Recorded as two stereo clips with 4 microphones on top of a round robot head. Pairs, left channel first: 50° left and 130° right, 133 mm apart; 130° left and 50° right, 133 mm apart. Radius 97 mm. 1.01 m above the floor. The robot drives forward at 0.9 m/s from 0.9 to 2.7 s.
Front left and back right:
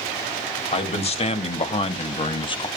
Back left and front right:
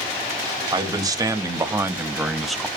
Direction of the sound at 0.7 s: 10° left.